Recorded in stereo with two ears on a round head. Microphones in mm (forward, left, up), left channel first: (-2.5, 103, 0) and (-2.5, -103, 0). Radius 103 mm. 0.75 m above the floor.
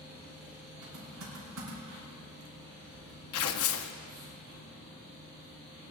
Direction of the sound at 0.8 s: 65° right (ahead or behind).